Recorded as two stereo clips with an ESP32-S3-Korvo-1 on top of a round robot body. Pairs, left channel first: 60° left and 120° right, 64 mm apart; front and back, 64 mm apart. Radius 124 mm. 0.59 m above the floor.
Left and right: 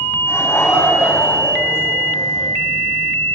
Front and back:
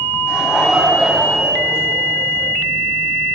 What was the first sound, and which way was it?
Laughter, 100° left.